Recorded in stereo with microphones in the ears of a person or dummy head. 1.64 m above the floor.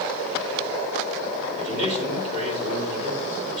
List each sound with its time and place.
1.6 s a man speaking: 50° right (ahead or behind), 4.5 m